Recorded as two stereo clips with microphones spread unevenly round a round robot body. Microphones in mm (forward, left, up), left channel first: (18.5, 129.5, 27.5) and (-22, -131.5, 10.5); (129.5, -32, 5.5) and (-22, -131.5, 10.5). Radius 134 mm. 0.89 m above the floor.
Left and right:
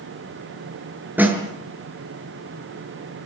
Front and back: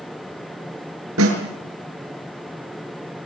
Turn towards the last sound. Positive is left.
turn(degrees=175)